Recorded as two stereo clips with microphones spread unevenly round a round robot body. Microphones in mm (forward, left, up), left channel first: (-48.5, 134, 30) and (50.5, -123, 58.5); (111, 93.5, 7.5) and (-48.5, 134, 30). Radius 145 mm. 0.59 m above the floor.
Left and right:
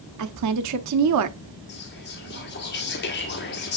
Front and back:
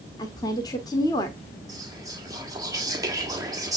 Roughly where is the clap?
No clap in this recording.